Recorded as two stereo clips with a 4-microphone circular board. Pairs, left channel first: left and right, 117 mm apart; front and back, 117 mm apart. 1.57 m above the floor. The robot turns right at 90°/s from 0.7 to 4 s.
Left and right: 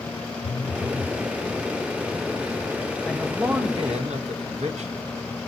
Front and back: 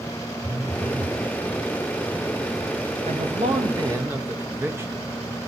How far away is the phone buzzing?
About 0.7 m.